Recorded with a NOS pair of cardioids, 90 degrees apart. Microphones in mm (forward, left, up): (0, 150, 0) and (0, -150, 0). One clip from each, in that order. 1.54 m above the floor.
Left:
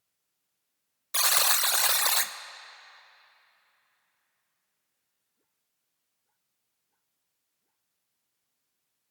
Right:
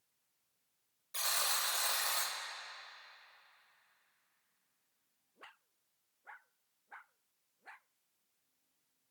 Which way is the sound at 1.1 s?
55° left.